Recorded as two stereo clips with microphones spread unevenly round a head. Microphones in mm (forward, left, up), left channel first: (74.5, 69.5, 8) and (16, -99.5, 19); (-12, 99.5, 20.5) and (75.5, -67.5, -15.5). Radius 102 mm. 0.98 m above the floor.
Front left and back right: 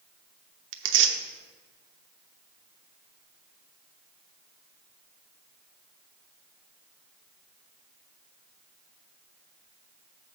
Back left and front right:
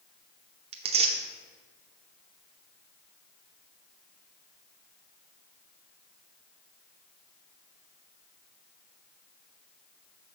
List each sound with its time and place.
0.7 s tearing paper: 115° right, 0.7 m